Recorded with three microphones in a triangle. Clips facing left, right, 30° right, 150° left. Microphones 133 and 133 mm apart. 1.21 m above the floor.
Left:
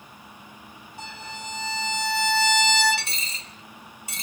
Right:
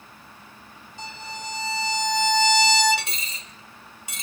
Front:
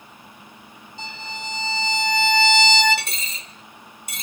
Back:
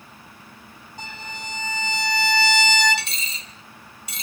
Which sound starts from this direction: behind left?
A violin, at 1.0 s.